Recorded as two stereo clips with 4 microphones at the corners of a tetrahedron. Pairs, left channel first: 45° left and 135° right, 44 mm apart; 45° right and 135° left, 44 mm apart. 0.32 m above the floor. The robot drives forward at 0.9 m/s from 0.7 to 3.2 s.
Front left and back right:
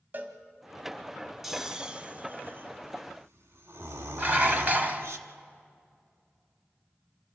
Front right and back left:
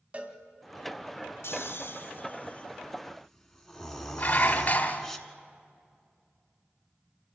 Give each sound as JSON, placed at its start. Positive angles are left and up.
{"t": 0.1, "sound": "a cowbell", "azimuth_deg": -170, "distance_m": 1.6}
{"t": 1.4, "sound": "snoring", "azimuth_deg": -50, "distance_m": 1.3}
{"t": 4.2, "sound": "dishes clattering", "azimuth_deg": -90, "distance_m": 1.5}